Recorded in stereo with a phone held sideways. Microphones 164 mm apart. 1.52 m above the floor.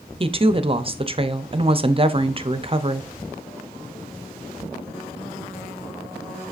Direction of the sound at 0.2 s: 35° right (ahead or behind).